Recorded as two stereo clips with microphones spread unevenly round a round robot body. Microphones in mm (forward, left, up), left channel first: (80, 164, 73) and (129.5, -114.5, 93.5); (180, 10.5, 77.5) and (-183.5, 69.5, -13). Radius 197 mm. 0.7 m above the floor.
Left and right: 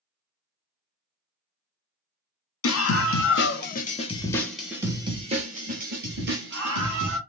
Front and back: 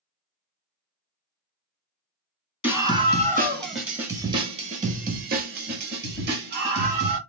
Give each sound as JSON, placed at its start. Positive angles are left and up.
{"t": 2.6, "sound": "a scream", "azimuth_deg": 75, "distance_m": 1.2}